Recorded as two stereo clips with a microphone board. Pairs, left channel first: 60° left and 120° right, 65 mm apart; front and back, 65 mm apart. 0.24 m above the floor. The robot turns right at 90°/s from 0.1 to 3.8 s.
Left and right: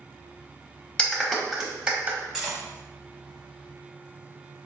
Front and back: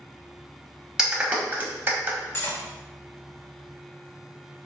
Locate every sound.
1.0 s a clap: 110° left, 0.8 m; by 2.2 s 145° right, 0.8 m
2.3 s cutlery clinking: 30° right, 0.9 m; by 2.6 s 10° right, 0.9 m